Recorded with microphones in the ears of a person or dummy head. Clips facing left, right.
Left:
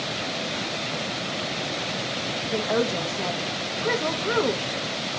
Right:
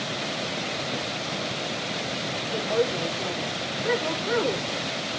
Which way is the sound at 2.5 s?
60° left (ahead or behind).